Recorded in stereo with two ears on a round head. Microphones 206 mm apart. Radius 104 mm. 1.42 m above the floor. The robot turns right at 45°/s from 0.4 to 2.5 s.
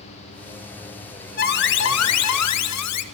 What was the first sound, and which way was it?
An alarm, 40° left.